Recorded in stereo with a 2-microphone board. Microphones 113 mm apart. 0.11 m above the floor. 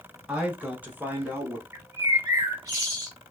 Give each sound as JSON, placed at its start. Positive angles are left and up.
{"t": 0.3, "sound": "a man speaking", "side_deg": -10, "distance_m": 1.4}
{"t": 1.7, "sound": "a bird", "side_deg": -30, "distance_m": 2.0}